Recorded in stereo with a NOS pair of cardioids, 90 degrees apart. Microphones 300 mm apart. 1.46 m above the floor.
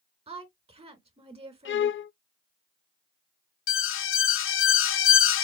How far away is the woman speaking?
About 2.5 m.